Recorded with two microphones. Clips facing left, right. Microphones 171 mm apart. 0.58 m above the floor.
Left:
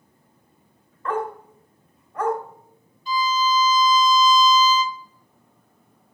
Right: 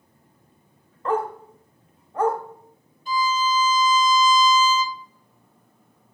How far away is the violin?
About 0.6 m.